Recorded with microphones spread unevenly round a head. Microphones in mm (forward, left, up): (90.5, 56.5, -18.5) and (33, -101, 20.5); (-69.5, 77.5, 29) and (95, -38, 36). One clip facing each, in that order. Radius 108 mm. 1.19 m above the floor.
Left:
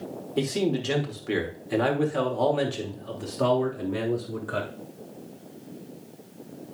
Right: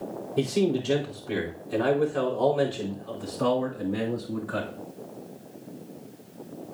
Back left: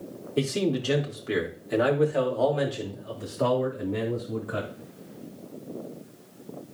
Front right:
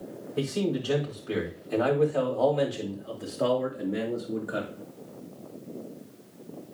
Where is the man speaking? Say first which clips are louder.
Right 1 dB, back left 2 dB; 90° left, 3 m; by 4.7 s 35° left, 4 m.